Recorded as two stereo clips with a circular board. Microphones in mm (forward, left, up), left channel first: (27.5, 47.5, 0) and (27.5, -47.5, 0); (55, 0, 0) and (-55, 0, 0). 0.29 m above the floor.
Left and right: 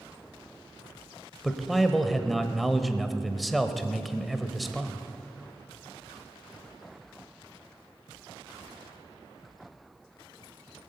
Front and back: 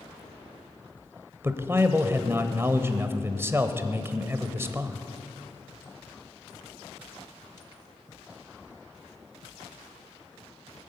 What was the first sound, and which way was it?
A man speaking, straight behind.